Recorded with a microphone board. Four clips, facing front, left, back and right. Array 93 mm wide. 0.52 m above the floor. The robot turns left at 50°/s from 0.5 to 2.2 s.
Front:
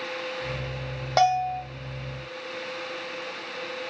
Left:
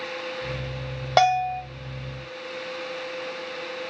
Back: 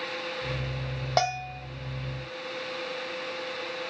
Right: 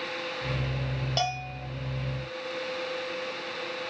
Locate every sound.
1.2 s a bell: 90° left, 1.8 m; by 1.6 s 65° left, 1.8 m